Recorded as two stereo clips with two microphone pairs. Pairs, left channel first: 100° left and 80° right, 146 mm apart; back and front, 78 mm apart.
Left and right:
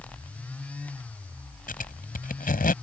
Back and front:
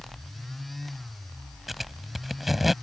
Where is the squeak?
90° left.